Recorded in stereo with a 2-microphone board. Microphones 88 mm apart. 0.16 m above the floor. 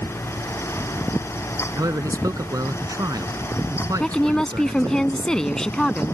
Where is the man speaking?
40° right (ahead or behind).